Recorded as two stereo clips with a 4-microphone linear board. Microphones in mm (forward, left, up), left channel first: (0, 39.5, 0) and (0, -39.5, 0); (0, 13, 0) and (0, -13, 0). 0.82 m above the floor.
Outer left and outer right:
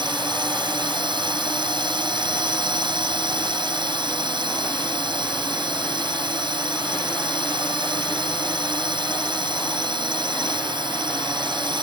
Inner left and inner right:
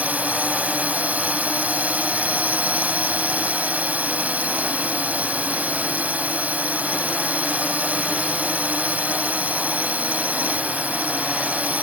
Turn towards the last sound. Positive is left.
turn(degrees=-75)  # may be behind; listen again after turning